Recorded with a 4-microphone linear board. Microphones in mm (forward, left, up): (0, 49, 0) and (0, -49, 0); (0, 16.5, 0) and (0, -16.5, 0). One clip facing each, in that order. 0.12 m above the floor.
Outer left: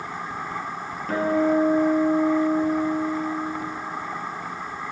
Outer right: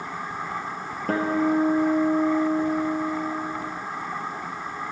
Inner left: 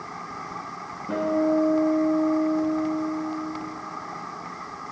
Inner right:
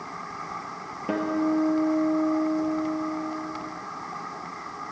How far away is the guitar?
About 1.8 m.